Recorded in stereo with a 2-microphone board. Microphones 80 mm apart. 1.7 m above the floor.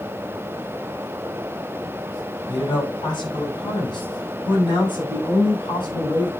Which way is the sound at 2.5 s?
65° left (ahead or behind).